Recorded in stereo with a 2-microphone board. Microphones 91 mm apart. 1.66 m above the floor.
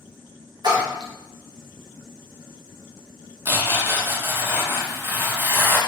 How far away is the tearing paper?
About 0.7 m.